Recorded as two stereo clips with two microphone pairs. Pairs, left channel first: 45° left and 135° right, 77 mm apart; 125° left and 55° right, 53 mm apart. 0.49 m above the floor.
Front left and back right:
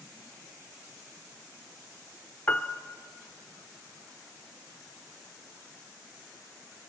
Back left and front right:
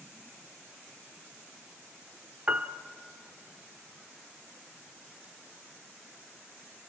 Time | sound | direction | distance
2.5 | a piano | 10° right | 1.0 m